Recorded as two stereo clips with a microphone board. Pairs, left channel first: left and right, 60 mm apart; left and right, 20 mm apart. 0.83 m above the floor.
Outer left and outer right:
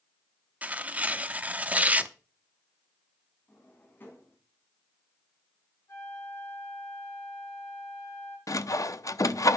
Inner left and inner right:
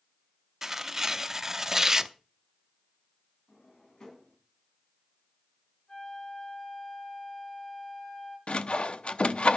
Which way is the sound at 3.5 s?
35° left (ahead or behind).